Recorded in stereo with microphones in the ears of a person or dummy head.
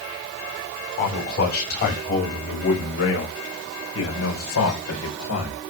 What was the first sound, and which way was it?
A man speaking, 50° left (ahead or behind).